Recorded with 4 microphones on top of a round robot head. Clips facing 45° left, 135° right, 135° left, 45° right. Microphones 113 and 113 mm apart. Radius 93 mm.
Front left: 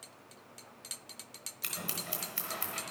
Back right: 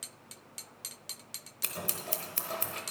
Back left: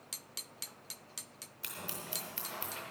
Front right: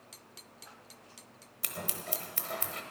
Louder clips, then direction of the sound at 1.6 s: Back right 3 dB, front right 5 dB; 90° right.